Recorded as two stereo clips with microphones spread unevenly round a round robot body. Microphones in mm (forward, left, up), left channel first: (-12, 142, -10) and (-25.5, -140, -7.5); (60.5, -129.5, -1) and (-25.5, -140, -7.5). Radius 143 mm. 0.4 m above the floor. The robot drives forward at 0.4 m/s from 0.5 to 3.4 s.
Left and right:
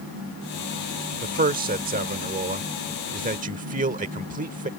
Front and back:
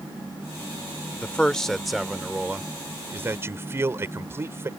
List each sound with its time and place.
1.2 s a man speaking: 60° right; by 4.7 s 140° right